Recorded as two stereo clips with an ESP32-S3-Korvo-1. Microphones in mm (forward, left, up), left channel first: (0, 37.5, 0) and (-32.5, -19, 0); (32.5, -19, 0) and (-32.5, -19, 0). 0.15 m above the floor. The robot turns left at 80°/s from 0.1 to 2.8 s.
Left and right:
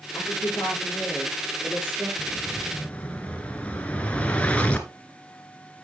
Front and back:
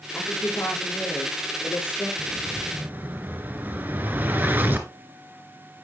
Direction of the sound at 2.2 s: 175° left.